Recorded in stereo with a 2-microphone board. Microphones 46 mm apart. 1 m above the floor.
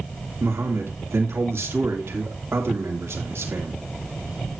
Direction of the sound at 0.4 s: 70° right (ahead or behind).